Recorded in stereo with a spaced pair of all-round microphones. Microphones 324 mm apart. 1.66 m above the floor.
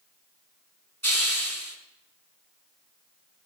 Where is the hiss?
50° right (ahead or behind), 3.5 m.